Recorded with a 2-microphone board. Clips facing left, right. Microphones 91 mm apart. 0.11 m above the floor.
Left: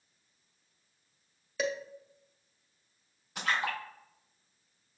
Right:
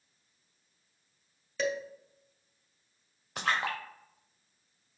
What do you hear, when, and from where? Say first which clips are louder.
1.6 s dishes clattering: right 1 dB; 5° left (ahead or behind), 1.6 m
3.4 s a splash: right 1 dB; 85° right, 2.5 m